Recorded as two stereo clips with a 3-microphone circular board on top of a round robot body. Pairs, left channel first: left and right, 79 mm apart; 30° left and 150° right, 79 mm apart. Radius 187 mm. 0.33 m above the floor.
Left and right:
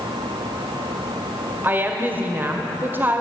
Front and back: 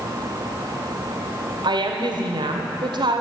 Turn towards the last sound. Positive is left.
turn(degrees=-155)